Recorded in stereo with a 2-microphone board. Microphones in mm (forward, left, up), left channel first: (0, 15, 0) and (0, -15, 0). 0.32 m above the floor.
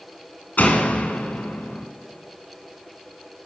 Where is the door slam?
70° left (ahead or behind), 1.9 m.